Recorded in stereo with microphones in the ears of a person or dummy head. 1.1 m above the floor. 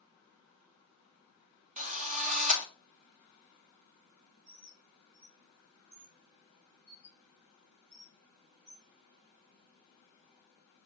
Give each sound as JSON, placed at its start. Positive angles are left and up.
{"t": 1.8, "sound": "a drill", "side_deg": -35, "distance_m": 1.1}
{"t": 4.5, "sound": "a bird", "side_deg": -60, "distance_m": 4.5}